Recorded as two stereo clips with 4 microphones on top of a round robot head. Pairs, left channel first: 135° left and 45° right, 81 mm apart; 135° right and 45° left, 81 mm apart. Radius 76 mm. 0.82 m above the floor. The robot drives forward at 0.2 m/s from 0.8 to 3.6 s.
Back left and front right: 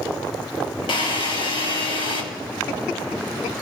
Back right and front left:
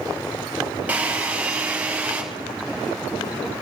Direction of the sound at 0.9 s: 120° left.